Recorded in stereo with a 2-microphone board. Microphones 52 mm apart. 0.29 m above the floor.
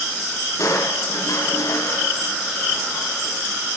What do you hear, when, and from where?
0.6 s crushing: 70° left (ahead or behind), 2.5 m